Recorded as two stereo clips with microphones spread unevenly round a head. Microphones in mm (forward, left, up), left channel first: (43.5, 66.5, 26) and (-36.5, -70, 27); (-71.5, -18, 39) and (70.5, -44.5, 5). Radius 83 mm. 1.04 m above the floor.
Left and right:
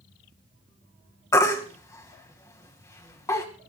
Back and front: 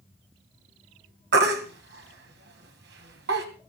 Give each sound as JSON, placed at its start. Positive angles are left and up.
{"t": 1.3, "sound": "a baby crying", "azimuth_deg": -10, "distance_m": 2.5}